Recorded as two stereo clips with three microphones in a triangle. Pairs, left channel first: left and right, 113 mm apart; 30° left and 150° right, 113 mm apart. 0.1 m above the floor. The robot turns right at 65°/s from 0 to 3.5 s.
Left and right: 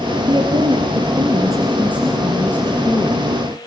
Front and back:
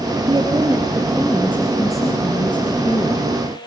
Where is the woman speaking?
125° right, 2 m; by 3.2 s 65° left, 2 m.